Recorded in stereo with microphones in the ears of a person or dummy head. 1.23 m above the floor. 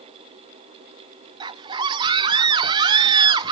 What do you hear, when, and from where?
1.4 s a scream: 20° right (ahead or behind), 0.9 m